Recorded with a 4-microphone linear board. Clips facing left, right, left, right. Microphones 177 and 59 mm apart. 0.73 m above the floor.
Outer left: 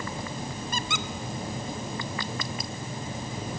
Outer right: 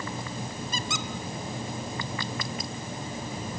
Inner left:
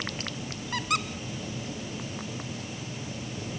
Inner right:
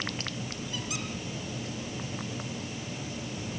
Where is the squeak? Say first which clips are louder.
Even, inner left 10 dB; 60° left (ahead or behind), 1.1 m.